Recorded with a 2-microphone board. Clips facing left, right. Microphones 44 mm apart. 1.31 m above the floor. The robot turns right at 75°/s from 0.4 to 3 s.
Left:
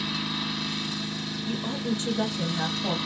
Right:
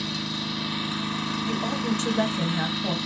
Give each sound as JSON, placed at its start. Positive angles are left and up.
{"t": 0.0, "sound": "an engine running", "azimuth_deg": 170, "distance_m": 1.3}
{"t": 1.4, "sound": "a woman speaking", "azimuth_deg": -105, "distance_m": 1.1}